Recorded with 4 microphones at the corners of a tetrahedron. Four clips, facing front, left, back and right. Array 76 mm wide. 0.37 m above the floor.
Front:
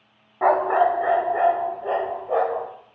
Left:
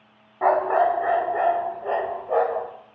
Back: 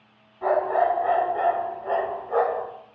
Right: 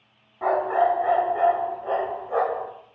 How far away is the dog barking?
About 0.6 m.